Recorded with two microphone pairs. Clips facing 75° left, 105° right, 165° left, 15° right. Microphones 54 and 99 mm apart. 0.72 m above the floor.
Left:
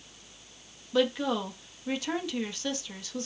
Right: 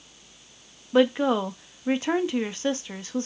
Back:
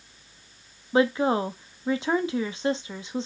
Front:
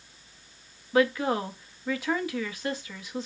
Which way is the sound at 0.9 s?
140° right.